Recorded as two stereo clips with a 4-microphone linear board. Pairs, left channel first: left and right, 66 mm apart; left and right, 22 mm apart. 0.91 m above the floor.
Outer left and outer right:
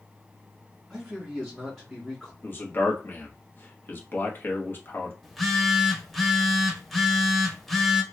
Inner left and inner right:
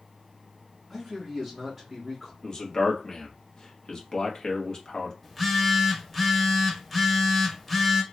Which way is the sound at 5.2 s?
Centre (ahead or behind).